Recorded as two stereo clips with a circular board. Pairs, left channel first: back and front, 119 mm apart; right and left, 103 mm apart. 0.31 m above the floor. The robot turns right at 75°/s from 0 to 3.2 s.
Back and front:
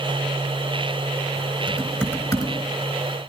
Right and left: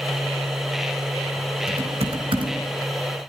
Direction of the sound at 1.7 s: 75° left.